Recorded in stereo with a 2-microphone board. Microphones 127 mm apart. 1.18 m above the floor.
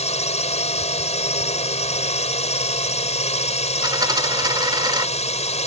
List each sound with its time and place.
0.0 s a drone: 60° left (ahead or behind)
3.8 s a dropped coin: 35° right (ahead or behind)